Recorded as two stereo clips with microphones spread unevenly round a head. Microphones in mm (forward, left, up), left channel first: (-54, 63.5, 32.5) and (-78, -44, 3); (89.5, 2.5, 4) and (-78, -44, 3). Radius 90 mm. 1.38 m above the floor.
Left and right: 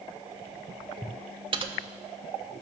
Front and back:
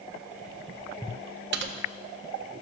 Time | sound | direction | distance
1.5 | typing on a keyboard | 150° right | 0.9 m